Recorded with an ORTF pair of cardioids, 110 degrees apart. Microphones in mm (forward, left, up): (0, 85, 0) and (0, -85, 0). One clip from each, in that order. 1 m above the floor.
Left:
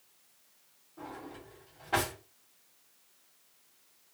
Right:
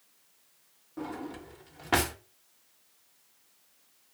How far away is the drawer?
About 0.7 m.